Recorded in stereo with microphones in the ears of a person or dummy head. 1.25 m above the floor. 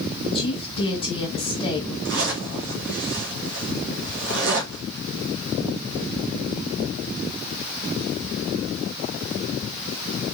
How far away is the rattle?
No rattle in this recording.